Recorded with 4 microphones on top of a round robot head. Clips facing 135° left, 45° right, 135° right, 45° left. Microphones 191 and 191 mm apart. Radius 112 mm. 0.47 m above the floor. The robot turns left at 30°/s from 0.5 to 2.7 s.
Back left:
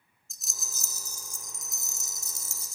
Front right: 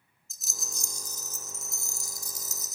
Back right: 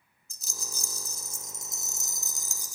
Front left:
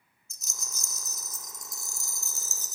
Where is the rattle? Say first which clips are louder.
Front right 4 dB, back right 5 dB; 135° right, 1.3 m; by 2.8 s 160° left, 1.3 m.